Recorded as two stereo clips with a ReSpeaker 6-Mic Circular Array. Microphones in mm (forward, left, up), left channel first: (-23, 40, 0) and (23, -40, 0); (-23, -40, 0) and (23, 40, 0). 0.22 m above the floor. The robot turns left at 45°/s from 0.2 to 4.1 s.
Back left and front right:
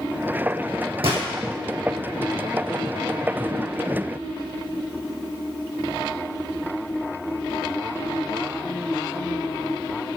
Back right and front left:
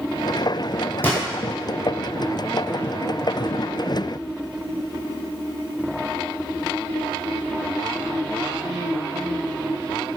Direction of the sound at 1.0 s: 55° right.